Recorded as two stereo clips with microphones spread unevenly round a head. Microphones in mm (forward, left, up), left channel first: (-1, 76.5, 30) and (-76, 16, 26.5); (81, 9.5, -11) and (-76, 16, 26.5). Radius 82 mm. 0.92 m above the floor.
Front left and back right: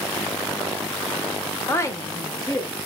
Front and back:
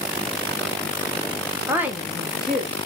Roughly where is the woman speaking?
Left.